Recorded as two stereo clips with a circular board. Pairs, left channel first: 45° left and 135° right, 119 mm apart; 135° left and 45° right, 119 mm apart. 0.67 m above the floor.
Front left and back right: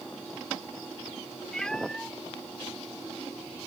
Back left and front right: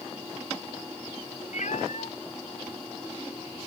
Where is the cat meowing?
130° left.